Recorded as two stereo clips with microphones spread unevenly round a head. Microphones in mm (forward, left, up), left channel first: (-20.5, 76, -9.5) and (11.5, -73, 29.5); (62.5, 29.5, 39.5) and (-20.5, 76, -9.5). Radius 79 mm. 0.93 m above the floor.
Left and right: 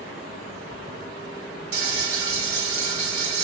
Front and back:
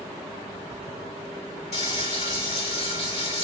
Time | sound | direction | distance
1.7 | frying | 65° right | 2.5 m